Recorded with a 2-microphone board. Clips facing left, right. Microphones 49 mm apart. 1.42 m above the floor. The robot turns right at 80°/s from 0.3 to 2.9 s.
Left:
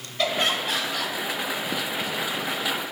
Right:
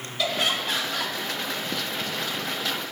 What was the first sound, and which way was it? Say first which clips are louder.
Laughter: left 2 dB; 140° left.